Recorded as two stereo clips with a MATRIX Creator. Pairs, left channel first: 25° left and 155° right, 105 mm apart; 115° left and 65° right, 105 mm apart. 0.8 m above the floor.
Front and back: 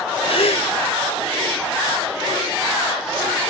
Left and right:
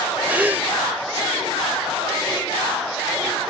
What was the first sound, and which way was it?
A gasp, 5° left.